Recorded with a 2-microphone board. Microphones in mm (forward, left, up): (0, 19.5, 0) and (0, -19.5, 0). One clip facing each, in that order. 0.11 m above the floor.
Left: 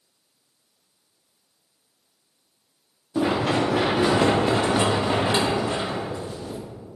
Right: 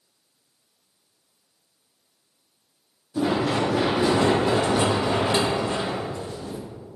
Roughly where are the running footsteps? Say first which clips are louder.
Left 1 dB; left.